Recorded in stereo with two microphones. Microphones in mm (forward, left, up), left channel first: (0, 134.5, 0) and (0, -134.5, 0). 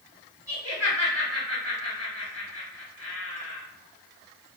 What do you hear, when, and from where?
0.5 s laughter: 60° right (ahead or behind), 2 m